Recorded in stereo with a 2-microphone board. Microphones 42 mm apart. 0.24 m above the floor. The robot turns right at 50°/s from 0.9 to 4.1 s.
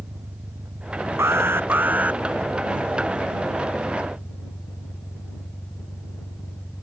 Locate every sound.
0.0 s an engine running: 95° right; by 6.8 s 65° left
1.2 s an alarm: 80° right; by 2.2 s 30° right